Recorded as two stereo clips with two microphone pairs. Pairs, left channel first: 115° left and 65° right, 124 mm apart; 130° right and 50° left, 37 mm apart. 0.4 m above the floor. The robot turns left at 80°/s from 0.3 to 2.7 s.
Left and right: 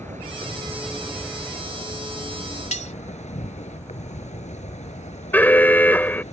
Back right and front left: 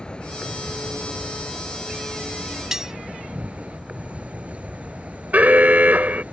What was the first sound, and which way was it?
An insect, 70° right.